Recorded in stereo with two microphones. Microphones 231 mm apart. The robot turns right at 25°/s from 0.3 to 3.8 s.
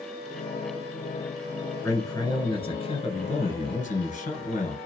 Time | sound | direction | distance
1.8 | a man speaking | 25° left | 1.3 m